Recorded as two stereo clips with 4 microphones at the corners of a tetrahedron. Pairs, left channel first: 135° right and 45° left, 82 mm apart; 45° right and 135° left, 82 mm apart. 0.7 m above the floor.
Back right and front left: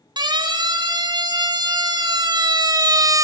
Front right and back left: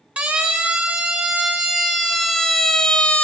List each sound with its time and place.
0.2 s a siren: 65° left, 3.5 m; by 3.2 s 25° left, 1.9 m